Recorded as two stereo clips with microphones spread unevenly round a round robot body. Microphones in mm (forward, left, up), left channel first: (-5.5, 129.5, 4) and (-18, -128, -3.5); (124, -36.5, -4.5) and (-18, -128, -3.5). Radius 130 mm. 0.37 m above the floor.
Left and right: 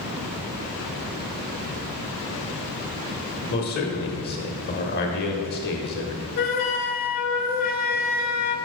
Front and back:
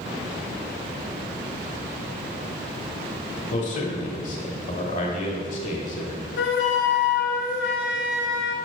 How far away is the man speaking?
About 1.3 m.